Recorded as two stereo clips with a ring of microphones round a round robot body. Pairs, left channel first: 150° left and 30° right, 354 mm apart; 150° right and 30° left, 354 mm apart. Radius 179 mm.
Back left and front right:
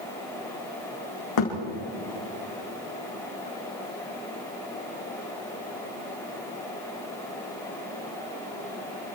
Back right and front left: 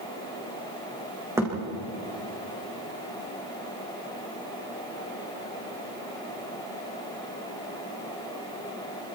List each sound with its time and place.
1.4 s a thud: 115° left, 7 m